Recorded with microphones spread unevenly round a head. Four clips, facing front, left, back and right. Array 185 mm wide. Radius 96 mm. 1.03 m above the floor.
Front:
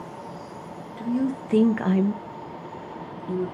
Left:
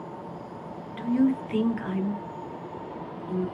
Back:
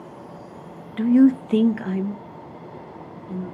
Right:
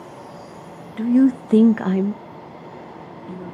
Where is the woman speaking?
140° right, 0.6 m; by 3.5 s 20° right, 1.5 m.